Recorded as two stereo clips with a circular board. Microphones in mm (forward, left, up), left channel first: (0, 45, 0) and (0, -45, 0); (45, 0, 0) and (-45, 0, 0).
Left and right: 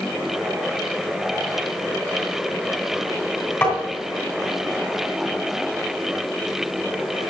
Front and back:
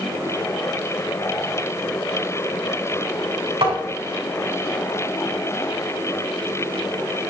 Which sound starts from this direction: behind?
Tapping, at 3.6 s.